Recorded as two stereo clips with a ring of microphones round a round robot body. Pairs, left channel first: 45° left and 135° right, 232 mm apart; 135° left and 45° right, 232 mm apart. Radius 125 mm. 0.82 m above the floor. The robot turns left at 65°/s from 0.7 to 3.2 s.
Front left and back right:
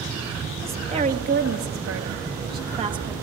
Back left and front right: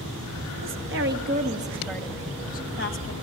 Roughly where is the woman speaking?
Ahead right.